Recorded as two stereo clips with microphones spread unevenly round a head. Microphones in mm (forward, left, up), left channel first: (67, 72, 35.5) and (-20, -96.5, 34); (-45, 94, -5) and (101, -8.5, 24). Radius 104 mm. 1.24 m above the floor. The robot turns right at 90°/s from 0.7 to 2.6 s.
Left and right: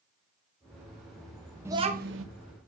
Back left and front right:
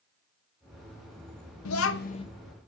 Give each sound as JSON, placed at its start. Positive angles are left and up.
{"t": 1.6, "sound": "a child speaking", "azimuth_deg": 165, "distance_m": 0.8}